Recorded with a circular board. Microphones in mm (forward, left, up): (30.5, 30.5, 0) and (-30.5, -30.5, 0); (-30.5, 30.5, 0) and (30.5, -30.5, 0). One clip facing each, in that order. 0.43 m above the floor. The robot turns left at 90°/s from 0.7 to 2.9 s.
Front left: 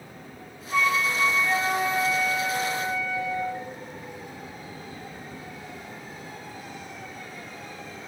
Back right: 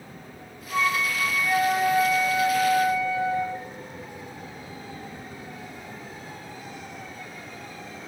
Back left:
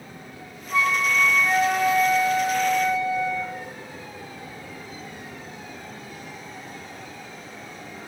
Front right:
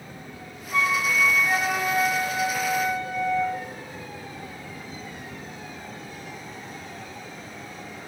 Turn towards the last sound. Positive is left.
turn(degrees=-50)